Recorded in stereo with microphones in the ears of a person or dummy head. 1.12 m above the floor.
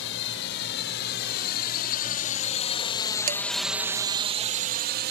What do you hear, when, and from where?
0.0 s a drone: 65° left (ahead or behind); by 5.1 s 55° right (ahead or behind)
3.3 s dishes clattering: 40° right (ahead or behind)